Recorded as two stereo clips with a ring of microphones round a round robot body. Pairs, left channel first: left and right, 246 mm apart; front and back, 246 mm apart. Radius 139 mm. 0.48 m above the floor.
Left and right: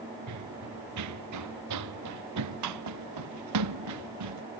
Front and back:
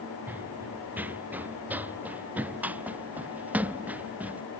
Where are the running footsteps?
95° right.